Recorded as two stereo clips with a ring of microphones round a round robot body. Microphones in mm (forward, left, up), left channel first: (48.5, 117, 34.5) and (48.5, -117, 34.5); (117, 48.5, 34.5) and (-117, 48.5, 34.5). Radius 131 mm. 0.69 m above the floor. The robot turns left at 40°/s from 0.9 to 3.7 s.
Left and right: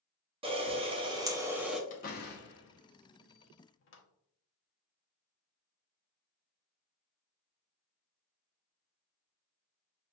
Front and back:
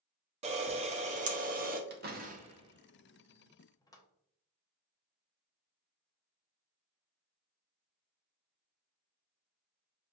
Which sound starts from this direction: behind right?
A camera shutter, at 0.4 s.